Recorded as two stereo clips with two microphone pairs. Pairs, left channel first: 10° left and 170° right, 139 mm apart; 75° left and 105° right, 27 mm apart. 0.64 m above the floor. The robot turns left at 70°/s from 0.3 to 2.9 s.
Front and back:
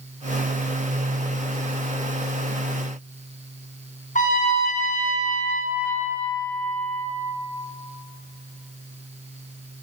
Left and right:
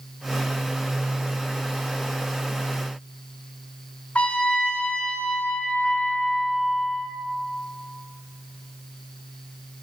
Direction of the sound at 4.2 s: 40° left.